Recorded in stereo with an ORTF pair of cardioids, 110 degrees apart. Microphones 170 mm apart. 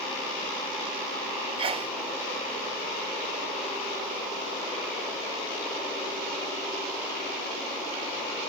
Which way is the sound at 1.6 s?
30° right.